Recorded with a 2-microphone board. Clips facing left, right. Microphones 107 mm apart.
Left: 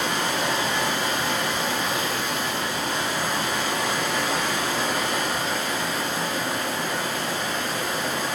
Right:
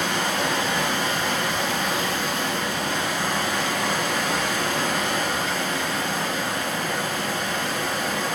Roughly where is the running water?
Right.